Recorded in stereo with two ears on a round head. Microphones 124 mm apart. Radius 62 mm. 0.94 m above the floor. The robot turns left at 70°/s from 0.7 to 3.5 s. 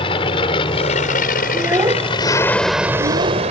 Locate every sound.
0.0 s an aircraft: 40° left (ahead or behind); by 3.5 s 50° right (ahead or behind)
1.5 s a child speaking: 5° right (ahead or behind); by 3.5 s 35° right (ahead or behind)